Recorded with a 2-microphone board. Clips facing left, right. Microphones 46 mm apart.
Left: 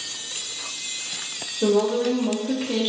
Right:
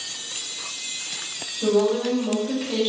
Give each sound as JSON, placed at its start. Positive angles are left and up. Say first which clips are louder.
{"t": 1.6, "sound": "a woman speaking", "louder": "even", "side_deg": 35, "distance_m": 0.9}